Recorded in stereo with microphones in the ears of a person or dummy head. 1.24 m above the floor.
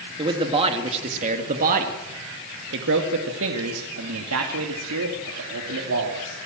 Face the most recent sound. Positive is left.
turn(degrees=-70)  # may be behind; listen again after turning